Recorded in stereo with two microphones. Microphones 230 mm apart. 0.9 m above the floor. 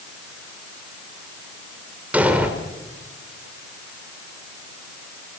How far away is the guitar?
No guitar in this recording.